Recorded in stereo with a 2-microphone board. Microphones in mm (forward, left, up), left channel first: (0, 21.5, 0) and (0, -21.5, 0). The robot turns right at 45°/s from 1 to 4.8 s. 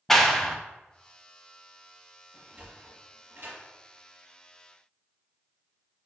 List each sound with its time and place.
0.1 s a clap: 10° left (ahead or behind), 0.7 m
2.3 s a sliding door: 10° right (ahead or behind), 3 m; by 3.6 s 65° right (ahead or behind), 3 m